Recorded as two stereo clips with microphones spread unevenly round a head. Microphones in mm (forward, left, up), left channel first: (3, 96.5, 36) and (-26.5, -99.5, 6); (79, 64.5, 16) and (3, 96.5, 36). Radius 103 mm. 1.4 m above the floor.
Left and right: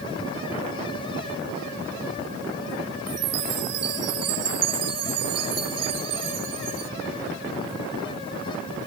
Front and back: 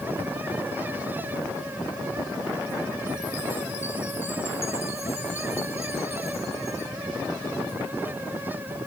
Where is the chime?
100° right.